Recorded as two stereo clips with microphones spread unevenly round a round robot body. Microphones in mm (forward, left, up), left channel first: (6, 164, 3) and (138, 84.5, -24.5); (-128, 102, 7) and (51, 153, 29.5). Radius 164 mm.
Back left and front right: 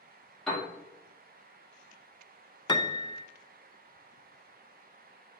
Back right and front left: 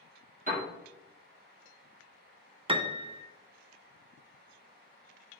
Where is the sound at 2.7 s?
80° left, 0.6 m.